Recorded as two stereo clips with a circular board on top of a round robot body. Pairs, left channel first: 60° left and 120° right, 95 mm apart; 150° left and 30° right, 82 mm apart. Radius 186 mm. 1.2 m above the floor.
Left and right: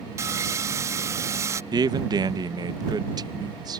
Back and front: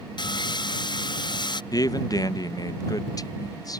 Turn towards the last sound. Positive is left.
turn(degrees=-165)